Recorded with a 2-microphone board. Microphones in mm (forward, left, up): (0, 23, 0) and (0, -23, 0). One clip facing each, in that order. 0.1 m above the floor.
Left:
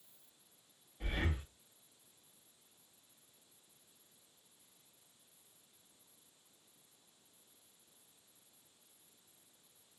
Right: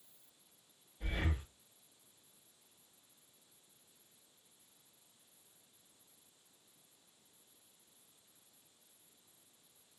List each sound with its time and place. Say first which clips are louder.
1.0 s breathing: left 1 dB; 55° left (ahead or behind), 1.3 m